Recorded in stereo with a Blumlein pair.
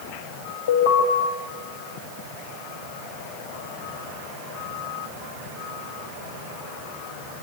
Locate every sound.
0.7 s an alarm: 60° left, 6.5 m